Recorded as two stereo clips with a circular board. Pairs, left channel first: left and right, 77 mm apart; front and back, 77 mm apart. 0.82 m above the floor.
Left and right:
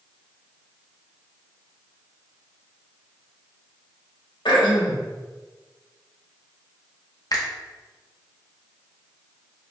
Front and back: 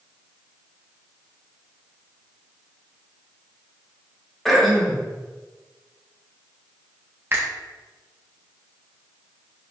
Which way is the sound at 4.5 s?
90° left.